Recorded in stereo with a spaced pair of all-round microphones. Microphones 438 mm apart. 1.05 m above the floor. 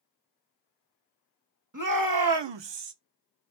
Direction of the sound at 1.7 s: 45° right (ahead or behind).